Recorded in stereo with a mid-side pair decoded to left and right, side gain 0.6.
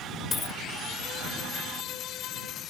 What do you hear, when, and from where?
0.3 s a dropped coin: 30° left